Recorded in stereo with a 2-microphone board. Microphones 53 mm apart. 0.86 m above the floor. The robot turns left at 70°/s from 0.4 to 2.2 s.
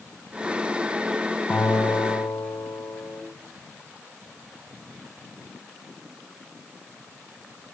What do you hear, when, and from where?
1.5 s a guitar: 150° left, 3 m; by 3.2 s 100° left, 3 m